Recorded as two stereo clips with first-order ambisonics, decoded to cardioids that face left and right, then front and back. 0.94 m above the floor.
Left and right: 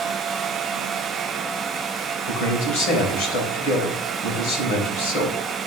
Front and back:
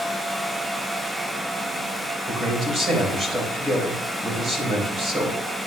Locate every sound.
2.3 s a man speaking: 110° left, 3.5 m